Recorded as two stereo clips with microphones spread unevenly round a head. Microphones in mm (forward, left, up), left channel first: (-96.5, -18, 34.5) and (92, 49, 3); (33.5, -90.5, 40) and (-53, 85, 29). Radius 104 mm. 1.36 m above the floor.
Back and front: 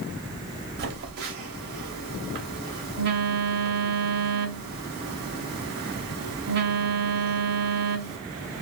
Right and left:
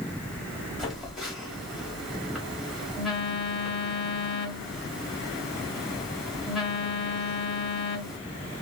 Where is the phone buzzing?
25° left, 1.0 m.